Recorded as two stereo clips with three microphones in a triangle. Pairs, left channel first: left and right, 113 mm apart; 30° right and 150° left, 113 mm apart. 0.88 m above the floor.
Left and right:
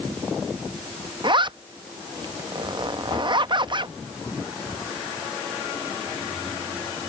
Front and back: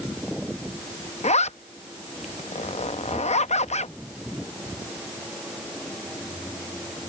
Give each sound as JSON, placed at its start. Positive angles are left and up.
{"t": 1.2, "sound": "a zipper", "azimuth_deg": -40}